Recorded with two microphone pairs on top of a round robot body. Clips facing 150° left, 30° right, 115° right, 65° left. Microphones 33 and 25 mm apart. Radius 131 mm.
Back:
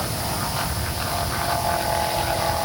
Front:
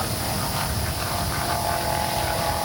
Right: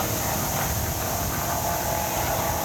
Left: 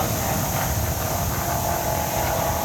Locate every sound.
Only background noise.